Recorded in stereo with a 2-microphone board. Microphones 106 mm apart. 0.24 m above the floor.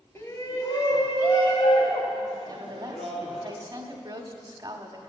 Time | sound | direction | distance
0.1 | a shout | 25° left (ahead or behind) | 1.2 m
2.5 | a woman speaking | 40° right (ahead or behind) | 1.2 m